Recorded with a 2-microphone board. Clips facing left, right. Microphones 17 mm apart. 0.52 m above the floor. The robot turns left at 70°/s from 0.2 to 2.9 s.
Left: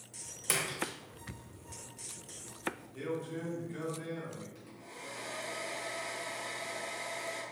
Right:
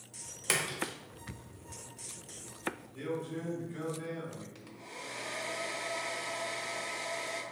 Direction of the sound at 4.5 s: 40° right (ahead or behind).